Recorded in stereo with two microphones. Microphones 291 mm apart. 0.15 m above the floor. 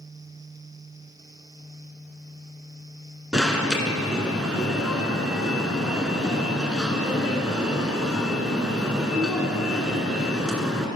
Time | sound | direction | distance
3.3 | an alarm | 5° right (ahead or behind) | 1.4 m